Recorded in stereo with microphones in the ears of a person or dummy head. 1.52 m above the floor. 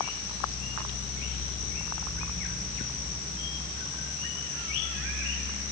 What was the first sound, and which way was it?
Only background noise.